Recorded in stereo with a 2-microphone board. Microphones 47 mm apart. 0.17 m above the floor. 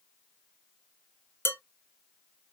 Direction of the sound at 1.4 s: 55° left (ahead or behind).